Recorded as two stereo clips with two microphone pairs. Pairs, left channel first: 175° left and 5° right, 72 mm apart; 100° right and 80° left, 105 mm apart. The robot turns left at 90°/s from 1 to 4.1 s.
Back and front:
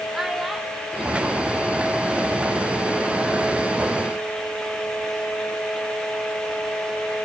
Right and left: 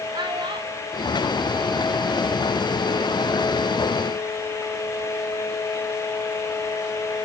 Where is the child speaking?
85° left, 1.2 m; by 2.5 s 50° right, 1.2 m.